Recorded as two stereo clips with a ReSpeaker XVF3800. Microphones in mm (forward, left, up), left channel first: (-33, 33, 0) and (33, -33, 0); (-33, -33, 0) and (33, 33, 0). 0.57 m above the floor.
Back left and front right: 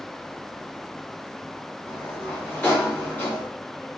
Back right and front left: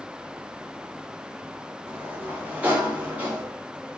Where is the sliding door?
95° left, 1.3 m.